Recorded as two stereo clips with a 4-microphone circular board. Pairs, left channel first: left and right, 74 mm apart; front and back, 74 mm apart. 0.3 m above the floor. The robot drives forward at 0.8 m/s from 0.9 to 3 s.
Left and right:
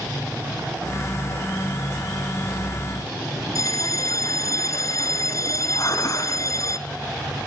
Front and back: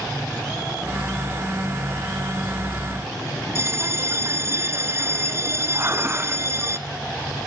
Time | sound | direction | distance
3.5 | a bell | 125° left | 0.6 m
5.8 | dishes clattering | 120° left | 1.9 m